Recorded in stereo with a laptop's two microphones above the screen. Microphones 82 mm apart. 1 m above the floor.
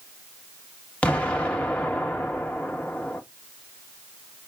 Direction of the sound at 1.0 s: 15° left (ahead or behind).